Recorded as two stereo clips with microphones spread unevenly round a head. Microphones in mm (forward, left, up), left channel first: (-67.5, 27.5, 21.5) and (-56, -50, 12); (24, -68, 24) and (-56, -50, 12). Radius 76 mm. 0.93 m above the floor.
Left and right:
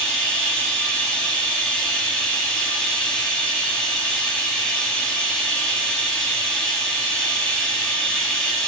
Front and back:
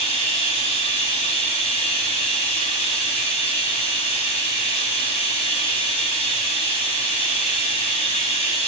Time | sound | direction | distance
0.0 | running water | 15° left | 0.8 m